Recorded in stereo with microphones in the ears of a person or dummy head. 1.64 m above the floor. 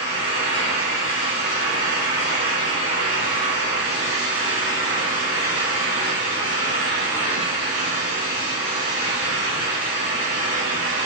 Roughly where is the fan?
Left.